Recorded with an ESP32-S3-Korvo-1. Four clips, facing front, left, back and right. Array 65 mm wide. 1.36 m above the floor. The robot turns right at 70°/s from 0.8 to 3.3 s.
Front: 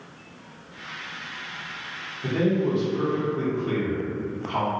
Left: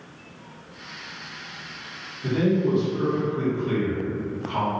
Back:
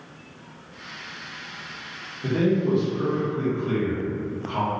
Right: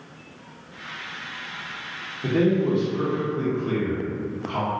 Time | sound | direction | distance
2.2 | a man speaking | 95° right | 1.0 m